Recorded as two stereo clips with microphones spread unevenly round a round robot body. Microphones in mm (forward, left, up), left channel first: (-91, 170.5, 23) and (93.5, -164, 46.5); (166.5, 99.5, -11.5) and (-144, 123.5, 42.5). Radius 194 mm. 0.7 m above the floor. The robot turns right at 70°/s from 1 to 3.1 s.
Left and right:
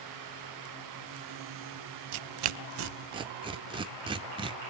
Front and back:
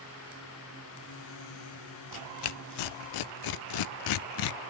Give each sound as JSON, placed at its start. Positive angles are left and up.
{"t": 2.1, "sound": "tearing paper", "azimuth_deg": -55, "distance_m": 0.5}